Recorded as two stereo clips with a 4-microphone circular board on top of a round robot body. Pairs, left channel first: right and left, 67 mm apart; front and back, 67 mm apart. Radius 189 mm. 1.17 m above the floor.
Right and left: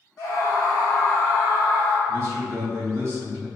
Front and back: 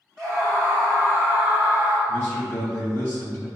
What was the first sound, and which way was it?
A scream, 80° right.